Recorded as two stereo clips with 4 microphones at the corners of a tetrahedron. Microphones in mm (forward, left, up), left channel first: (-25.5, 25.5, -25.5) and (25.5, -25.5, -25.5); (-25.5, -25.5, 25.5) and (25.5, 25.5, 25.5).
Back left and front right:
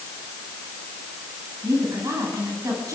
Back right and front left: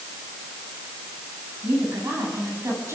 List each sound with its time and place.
1.6 s a woman speaking: 5° right, 8 m